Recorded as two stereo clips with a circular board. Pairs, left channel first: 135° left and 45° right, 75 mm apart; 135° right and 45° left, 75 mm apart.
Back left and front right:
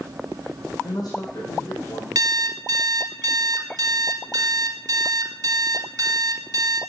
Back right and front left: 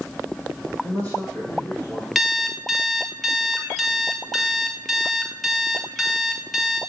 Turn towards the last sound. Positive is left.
turn(degrees=-45)